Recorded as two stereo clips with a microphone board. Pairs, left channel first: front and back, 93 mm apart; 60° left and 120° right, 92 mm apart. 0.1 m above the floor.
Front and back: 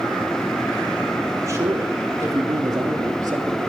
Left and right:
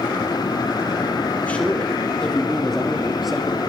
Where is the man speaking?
130° left, 3 m; by 3.7 s 160° left, 2.5 m.